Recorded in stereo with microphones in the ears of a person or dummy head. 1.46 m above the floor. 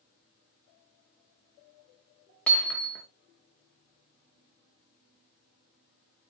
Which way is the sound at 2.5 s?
5° left (ahead or behind).